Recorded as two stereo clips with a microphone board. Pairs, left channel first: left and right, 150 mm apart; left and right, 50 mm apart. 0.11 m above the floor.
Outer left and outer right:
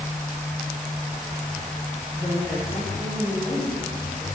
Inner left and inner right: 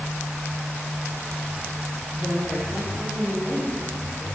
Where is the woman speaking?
20° left (ahead or behind), 2.5 m.